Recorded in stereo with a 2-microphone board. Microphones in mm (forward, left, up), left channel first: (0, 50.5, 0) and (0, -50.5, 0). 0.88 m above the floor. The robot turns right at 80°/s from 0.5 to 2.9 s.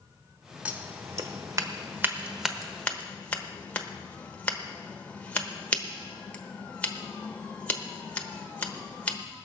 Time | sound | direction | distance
0.7 | scissors | 15° right (ahead or behind) | 1.0 m